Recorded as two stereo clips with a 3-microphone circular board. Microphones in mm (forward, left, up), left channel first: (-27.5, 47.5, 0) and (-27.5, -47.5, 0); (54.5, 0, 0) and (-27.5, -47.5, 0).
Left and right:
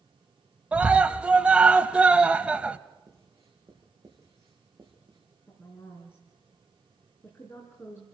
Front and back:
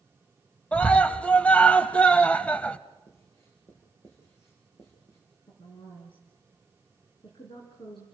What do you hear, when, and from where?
0.7 s a scream: 30° right, 1.0 m
3.1 s writing: 30° right, 6 m
5.5 s a woman speaking: 30° left, 3.5 m